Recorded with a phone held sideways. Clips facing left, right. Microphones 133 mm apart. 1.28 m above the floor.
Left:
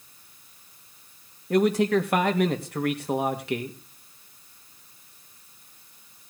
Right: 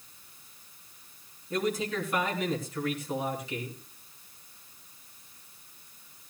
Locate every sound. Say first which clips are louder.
1.5 s a man speaking: left 9 dB; 70° left (ahead or behind), 2.5 m